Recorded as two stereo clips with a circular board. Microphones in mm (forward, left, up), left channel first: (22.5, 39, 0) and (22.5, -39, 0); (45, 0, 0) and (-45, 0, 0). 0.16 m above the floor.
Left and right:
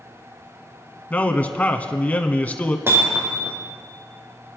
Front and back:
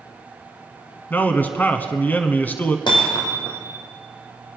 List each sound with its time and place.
1.1 s a man speaking: 40° left, 1.1 m
2.9 s hammering: 30° right, 3 m